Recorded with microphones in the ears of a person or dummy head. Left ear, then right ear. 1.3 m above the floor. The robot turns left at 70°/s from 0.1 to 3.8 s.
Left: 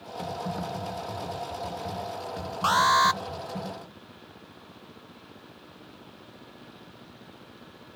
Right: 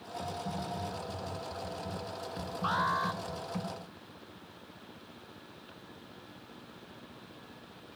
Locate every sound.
0.2 s typing on a keyboard: 155° left, 4 m; by 3.6 s 85° right, 4 m
2.6 s an alarm: 100° left, 1.0 m; by 3.2 s 60° left, 1.0 m